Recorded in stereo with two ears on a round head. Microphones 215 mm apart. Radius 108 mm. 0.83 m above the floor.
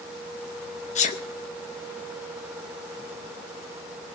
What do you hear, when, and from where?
0.9 s a sneeze: 30° left (ahead or behind), 0.6 m